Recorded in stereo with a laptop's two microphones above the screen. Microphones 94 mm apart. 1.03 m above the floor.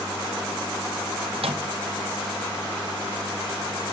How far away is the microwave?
About 1.0 m.